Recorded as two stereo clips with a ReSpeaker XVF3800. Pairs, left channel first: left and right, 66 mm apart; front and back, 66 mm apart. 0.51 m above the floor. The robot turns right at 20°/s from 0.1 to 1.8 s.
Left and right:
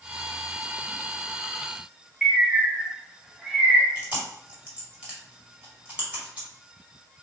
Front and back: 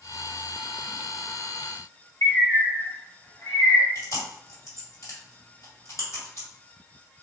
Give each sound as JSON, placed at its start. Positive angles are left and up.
{"t": 2.2, "sound": "a bird", "azimuth_deg": -10, "distance_m": 1.0}
{"t": 4.0, "sound": "chewing", "azimuth_deg": -25, "distance_m": 1.8}